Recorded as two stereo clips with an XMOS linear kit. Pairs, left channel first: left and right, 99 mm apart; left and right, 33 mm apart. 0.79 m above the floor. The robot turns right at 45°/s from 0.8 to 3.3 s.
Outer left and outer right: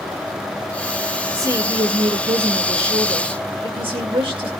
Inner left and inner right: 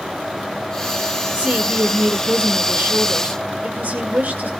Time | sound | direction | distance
1.3 | a woman speaking | 150° right | 2 m